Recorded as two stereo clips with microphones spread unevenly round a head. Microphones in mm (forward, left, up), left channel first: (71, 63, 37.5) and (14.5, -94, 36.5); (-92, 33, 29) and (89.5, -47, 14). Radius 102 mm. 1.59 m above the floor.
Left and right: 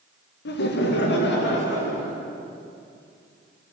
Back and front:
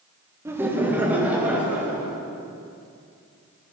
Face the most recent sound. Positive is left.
turn(degrees=60)